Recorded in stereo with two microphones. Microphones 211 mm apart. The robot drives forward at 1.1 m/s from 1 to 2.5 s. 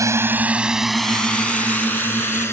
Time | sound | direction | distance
0.0 | a drone | 15° right (ahead or behind) | ?